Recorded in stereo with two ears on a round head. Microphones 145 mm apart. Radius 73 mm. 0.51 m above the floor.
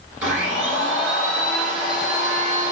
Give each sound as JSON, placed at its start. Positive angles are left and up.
{"t": 0.2, "sound": "a blender", "side_deg": -5, "distance_m": 1.7}